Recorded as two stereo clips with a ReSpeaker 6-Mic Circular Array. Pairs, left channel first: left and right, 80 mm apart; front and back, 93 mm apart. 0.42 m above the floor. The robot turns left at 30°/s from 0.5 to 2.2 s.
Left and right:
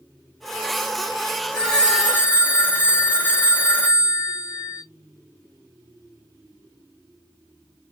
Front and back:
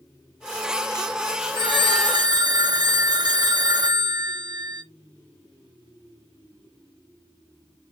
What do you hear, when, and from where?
1.6 s a phone ringing: 170° left, 0.7 m; by 4.8 s 150° left, 0.7 m